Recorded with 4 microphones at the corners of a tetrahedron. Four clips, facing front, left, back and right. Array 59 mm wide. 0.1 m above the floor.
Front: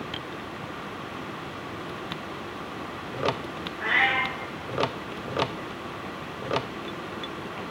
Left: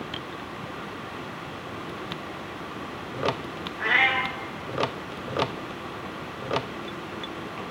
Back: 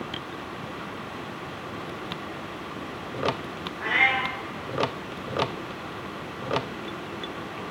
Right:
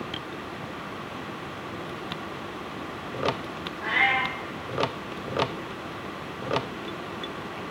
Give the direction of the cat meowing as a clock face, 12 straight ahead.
9 o'clock.